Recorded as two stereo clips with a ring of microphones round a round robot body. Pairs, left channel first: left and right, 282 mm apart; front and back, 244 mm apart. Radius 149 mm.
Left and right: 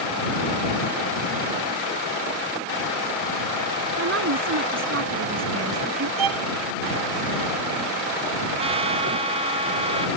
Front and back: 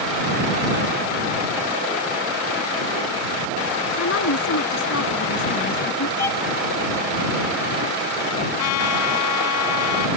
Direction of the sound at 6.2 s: 80° right.